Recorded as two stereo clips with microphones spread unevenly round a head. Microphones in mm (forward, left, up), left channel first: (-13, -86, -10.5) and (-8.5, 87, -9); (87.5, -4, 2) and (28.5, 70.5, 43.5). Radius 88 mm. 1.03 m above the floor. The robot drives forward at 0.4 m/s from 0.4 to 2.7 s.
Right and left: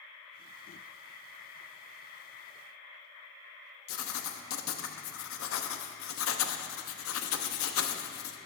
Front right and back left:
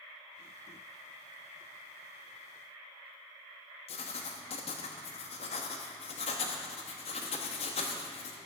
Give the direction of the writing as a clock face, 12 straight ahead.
3 o'clock.